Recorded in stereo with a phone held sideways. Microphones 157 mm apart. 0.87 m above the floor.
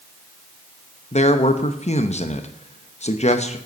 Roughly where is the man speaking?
Left.